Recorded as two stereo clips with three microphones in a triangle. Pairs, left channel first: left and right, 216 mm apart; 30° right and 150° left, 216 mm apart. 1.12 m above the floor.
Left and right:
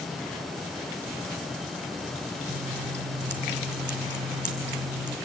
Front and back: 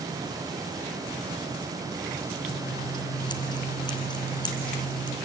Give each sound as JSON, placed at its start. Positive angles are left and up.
{"t": 2.5, "sound": "scissors", "azimuth_deg": -95, "distance_m": 2.0}